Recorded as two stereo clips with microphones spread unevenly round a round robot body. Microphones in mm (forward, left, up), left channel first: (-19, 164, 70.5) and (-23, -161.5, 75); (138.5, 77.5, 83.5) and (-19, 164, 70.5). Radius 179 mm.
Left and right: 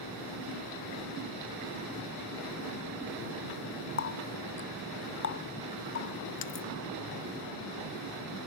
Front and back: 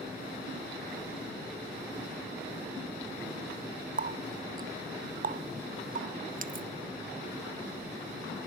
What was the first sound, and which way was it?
A running tap, 135° left.